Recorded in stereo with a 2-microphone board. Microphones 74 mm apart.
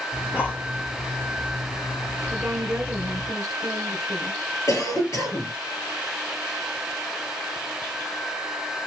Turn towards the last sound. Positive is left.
turn(degrees=45)  # may be behind; listen again after turning